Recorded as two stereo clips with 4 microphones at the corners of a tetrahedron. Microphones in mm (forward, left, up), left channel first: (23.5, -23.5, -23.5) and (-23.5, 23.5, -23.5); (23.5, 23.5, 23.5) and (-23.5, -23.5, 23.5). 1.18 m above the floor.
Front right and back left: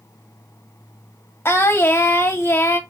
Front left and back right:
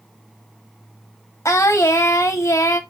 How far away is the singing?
About 1.0 m.